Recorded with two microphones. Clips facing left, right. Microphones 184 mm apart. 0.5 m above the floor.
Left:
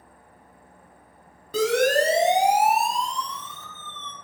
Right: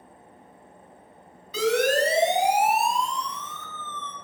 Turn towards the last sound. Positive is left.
turn(degrees=25)  # may be behind; listen again after turning